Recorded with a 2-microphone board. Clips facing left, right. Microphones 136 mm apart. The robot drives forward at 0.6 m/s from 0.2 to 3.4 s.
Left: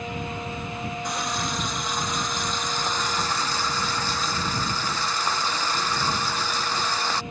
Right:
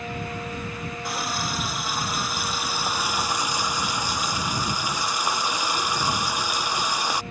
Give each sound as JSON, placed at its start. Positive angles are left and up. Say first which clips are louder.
{"t": 1.0, "sound": "a running tap", "louder": "right 1 dB", "side_deg": -5}